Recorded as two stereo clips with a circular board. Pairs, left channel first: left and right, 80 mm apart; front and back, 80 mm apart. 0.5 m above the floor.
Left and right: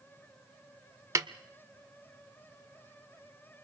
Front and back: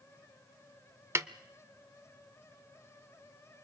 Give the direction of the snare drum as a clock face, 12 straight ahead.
4 o'clock.